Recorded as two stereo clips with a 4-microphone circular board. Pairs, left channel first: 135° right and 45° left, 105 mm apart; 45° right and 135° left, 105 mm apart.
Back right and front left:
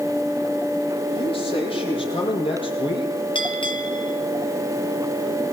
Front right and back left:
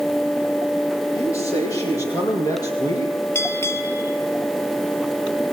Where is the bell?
110° right, 3 m.